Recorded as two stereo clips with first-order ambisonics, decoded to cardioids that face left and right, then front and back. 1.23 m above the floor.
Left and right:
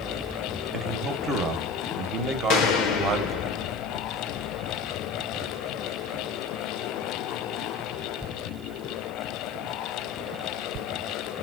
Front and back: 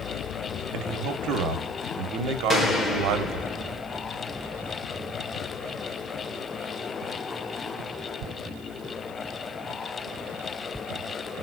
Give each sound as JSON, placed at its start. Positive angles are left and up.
{"t": 0.7, "sound": "a man speaking", "azimuth_deg": -155, "distance_m": 0.8}
{"t": 2.5, "sound": "a gunshot", "azimuth_deg": 70, "distance_m": 0.8}